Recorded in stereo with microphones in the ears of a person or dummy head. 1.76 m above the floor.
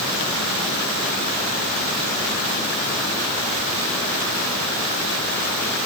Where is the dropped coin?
I don't hear a dropped coin.